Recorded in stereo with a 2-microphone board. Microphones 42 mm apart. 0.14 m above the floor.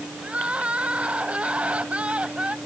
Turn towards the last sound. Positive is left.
turn(degrees=-25)  # may be behind; listen again after turning